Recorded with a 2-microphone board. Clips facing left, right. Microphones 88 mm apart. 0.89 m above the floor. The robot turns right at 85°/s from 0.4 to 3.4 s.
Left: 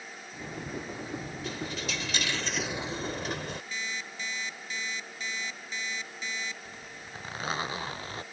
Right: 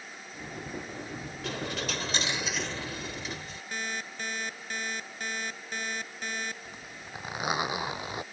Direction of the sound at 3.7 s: 60° right (ahead or behind).